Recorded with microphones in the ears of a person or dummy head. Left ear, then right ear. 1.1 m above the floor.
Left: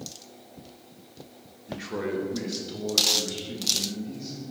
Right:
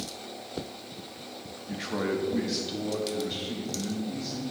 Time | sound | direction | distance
1.7 | a man speaking | 5° right (ahead or behind) | 0.8 m